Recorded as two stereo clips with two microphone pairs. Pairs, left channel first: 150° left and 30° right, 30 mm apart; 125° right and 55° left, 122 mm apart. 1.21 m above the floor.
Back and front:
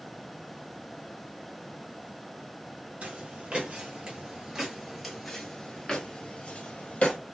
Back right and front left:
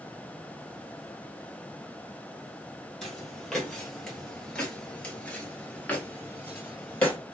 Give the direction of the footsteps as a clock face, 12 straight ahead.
1 o'clock.